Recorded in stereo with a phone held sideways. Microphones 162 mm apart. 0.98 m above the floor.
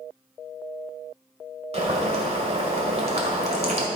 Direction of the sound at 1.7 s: 40° right (ahead or behind).